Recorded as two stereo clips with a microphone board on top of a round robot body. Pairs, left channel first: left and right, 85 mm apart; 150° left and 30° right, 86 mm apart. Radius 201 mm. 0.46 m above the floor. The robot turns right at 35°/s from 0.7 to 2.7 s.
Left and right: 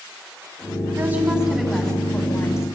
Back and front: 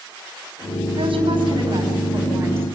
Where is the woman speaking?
25° right, 6 m; by 2.7 s 35° left, 6 m.